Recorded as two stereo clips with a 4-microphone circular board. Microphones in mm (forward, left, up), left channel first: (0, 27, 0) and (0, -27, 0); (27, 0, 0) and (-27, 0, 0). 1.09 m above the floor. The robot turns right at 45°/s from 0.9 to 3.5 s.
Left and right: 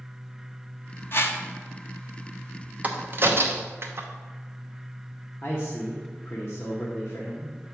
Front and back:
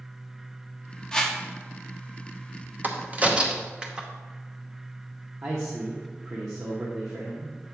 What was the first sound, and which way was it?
A whoosh, 70° left.